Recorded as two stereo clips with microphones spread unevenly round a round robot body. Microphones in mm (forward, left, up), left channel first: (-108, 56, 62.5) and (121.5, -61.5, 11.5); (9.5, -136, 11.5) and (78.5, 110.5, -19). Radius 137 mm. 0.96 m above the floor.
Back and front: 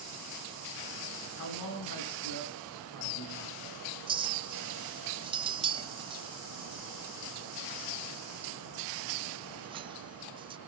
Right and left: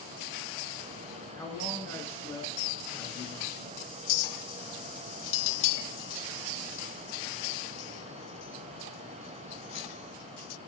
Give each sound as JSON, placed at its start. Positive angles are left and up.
{"t": 1.4, "sound": "a man speaking", "azimuth_deg": 170, "distance_m": 9.5}
{"t": 4.1, "sound": "a clink", "azimuth_deg": -100, "distance_m": 0.7}